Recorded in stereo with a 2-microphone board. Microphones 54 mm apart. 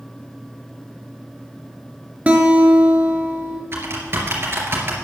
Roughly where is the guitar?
Right.